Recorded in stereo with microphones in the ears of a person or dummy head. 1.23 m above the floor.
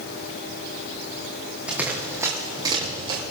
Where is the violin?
No violin in this recording.